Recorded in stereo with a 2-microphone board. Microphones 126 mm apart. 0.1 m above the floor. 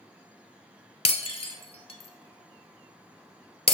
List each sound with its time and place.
1.1 s breaking glass: 50° left (ahead or behind), 1.1 m